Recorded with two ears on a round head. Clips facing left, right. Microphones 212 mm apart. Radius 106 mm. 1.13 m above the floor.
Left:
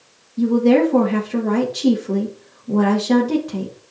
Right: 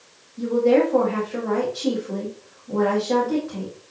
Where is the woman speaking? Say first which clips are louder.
Left 4 dB; 50° left (ahead or behind), 1.8 m.